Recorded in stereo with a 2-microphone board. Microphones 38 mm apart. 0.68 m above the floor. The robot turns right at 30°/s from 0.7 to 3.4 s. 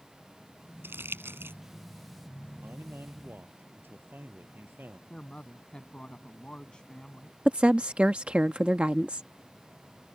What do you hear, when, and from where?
0.8 s crumpling: 80° right
2.6 s a man speaking: 80° right; by 5.0 s 60° right (ahead or behind)
5.1 s a woman speaking: 20° left (ahead or behind)
7.5 s a woman speaking: 30° right (ahead or behind)